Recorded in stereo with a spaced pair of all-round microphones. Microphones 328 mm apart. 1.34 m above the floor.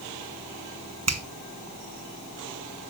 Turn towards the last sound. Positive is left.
turn(degrees=-50)  # may be behind; listen again after turning